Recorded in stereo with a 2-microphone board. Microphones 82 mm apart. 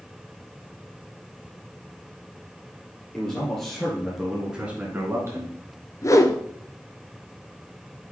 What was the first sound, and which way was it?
A man speaking, 10° left (ahead or behind).